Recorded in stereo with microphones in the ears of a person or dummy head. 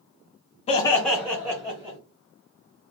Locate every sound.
0.7 s laughter: 30° left (ahead or behind), 0.6 m; by 2.0 s 15° right (ahead or behind), 1.2 m